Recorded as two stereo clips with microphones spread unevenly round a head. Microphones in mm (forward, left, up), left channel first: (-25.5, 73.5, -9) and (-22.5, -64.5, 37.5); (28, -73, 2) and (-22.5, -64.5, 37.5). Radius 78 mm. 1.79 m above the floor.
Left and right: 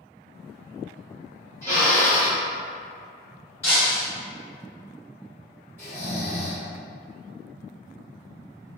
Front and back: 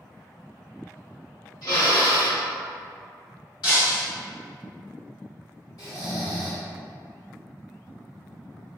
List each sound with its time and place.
1.6 s a drill: 5° left, 1.6 m
3.6 s breaking glass: 5° left, 1.9 m
5.8 s snoring: 25° right, 1.6 m